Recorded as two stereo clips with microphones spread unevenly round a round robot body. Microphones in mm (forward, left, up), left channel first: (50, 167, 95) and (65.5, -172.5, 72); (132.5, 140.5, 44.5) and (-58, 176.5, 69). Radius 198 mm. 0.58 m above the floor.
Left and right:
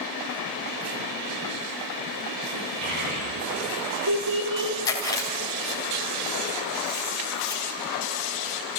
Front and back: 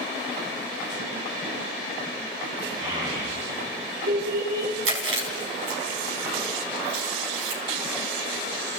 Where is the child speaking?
135° right, 8.5 m; by 4.7 s 130° right, 9.5 m.